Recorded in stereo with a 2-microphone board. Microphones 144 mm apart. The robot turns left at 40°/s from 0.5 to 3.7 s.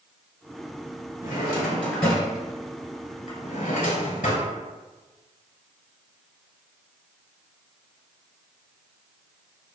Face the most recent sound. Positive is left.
turn(degrees=70)  # may be behind; listen again after turning